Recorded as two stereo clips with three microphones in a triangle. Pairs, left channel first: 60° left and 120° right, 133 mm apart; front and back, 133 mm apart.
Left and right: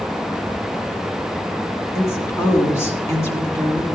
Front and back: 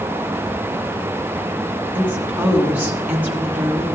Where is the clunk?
I don't hear a clunk.